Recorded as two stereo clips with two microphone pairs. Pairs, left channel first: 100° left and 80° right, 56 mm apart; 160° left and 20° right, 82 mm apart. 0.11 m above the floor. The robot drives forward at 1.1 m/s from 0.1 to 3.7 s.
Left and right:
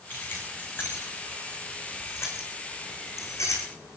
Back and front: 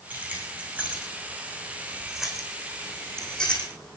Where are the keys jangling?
50° left, 6.5 m; by 4.0 s 85° left, 5 m.